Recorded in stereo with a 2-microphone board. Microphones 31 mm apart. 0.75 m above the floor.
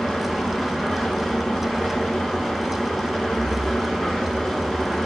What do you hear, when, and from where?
0.0 s an engine running: 15° left (ahead or behind), 2.5 m